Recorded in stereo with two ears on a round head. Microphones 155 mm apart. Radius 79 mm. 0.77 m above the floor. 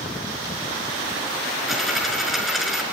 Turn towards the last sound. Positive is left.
turn(degrees=0)  # may be behind; listen again after turning